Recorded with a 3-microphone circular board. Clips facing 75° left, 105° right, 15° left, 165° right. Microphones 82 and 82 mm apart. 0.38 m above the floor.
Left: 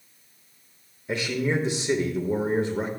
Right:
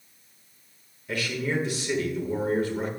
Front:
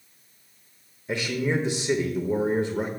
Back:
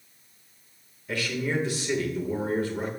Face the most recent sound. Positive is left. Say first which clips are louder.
# left 3 dB, front 3 dB
turn(degrees=50)